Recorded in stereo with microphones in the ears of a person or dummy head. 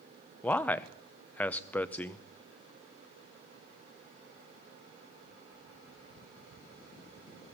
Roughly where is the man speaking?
Centre.